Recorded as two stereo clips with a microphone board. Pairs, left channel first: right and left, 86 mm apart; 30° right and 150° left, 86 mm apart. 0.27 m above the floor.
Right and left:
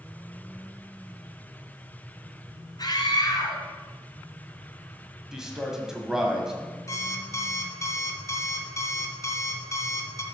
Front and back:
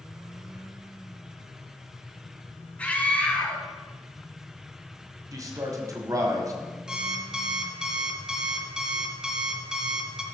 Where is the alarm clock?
130° right, 1.1 m.